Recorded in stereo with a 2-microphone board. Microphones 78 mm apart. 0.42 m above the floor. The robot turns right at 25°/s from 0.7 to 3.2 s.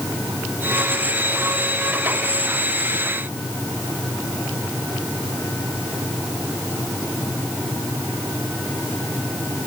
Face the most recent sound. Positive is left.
No sound to turn to.